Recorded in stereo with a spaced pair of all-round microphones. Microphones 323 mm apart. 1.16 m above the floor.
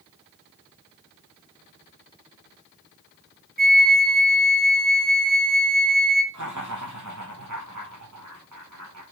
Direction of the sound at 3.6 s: 30° right (ahead or behind).